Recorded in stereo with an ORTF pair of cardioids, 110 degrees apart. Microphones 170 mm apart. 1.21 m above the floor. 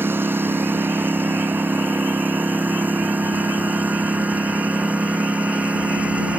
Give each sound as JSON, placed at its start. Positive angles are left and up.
{"t": 0.0, "sound": "a lawn mower", "azimuth_deg": -15}